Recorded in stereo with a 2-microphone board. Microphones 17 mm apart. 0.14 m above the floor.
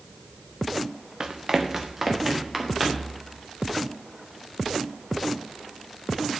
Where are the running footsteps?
45° right (ahead or behind), 1.7 m; by 3.1 s 15° right (ahead or behind), 4 m.